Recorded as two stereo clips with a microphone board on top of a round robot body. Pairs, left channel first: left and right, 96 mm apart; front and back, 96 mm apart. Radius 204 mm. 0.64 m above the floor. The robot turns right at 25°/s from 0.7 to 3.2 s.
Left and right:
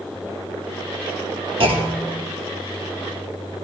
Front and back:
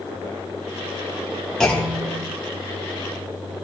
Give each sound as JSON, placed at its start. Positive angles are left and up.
{"t": 1.6, "sound": "a clunk", "azimuth_deg": -85, "distance_m": 2.0}